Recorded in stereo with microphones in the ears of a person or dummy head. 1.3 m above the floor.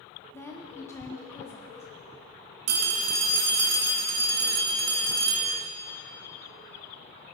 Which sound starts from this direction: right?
A phone ringing, at 2.7 s.